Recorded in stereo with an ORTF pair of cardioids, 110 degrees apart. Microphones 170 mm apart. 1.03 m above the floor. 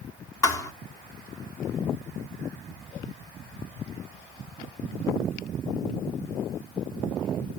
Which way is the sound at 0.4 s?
20° left.